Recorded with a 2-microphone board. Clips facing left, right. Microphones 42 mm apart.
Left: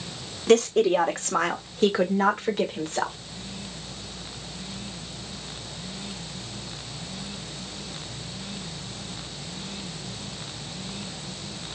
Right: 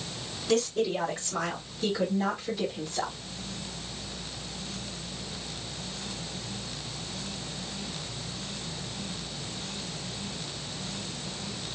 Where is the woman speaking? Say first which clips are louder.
Left 8 dB; 65° left (ahead or behind), 1.5 m; by 3.2 s 55° left (ahead or behind), 2 m.